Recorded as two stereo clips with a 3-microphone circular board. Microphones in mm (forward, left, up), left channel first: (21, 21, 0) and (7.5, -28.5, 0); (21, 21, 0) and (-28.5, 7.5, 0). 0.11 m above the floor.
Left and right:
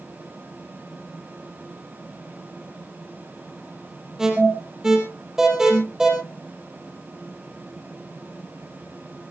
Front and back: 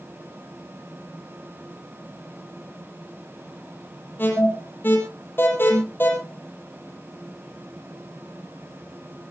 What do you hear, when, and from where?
4.2 s an alarm: 25° right, 4 m